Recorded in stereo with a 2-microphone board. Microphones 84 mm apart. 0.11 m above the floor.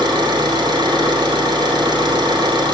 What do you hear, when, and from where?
0.0 s an engine running: 65° right (ahead or behind), 2.5 m